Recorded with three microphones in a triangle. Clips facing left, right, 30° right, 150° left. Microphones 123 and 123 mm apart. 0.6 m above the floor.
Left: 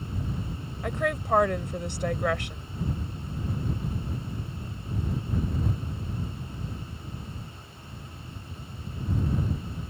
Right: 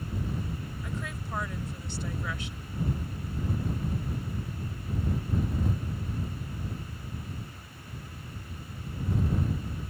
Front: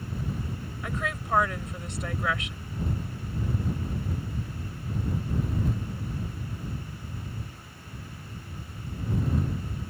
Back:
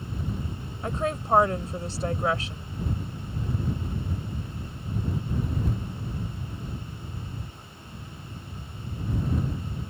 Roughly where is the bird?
No bird in this recording.